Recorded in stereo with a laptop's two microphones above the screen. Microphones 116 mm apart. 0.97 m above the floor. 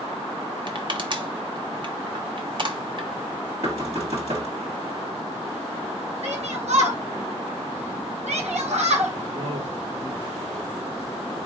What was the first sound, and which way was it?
Crushing, 40° right (ahead or behind).